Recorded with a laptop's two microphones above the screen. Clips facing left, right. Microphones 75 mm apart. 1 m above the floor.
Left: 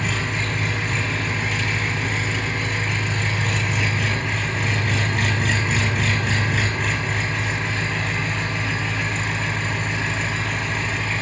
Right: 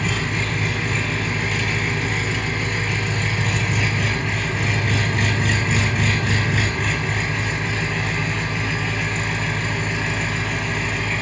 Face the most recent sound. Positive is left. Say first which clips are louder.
# right 1 dB
turn(degrees=0)  # may be behind; listen again after turning